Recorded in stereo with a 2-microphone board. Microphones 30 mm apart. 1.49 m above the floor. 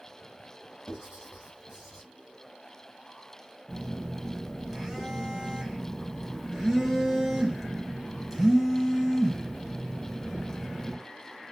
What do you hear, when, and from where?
0.9 s writing: 30° right (ahead or behind), 1.9 m
3.7 s a phone buzzing: 5° right (ahead or behind), 0.9 m